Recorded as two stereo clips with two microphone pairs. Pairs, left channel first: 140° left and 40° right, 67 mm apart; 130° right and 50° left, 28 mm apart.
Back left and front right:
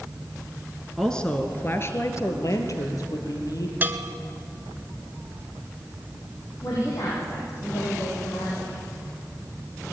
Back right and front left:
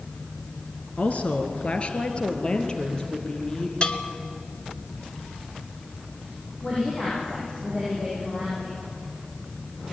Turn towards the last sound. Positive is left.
turn(degrees=175)